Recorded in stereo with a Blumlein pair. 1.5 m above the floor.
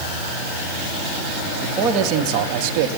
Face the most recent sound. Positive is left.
turn(degrees=-50)